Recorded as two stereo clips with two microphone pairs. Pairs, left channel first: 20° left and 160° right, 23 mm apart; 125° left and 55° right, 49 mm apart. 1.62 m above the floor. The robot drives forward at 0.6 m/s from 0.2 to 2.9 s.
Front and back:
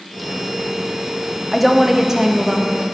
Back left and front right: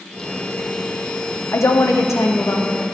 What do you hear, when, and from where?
1.5 s a woman speaking: 105° left, 0.7 m; by 2.8 s 145° left, 1.2 m